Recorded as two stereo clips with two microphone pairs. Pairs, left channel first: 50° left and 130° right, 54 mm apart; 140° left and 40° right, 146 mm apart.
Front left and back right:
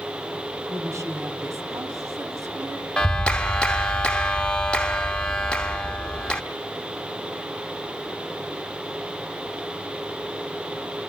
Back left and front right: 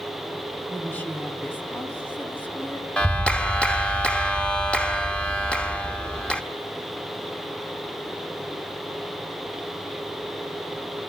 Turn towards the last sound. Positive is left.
turn(degrees=75)